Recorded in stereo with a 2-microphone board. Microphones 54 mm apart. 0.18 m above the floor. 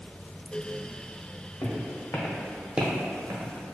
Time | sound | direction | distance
1.6 | footsteps | 70° left (ahead or behind) | 1.2 m